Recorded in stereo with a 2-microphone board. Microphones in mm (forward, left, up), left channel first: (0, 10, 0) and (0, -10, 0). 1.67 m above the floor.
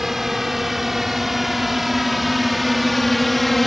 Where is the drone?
15° right (ahead or behind); by 3.7 s 5° left (ahead or behind).